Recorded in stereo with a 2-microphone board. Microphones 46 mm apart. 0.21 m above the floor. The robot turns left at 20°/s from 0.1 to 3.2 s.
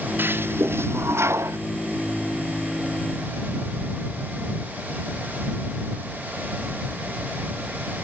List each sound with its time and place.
0.2 s a toilet flushing: 50° right (ahead or behind); by 1.6 s 80° right